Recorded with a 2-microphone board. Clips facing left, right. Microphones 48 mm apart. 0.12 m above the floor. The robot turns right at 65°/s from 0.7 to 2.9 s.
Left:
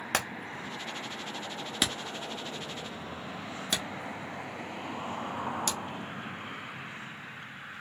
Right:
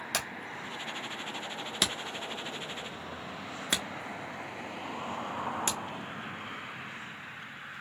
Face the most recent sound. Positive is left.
turn(degrees=-30)  # may be behind; listen again after turning